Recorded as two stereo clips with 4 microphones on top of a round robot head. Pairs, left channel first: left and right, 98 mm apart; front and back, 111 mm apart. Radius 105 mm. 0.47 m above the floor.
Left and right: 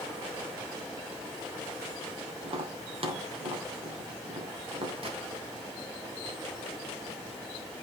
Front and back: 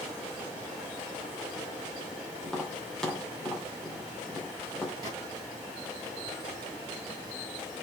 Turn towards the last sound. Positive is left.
turn(degrees=-115)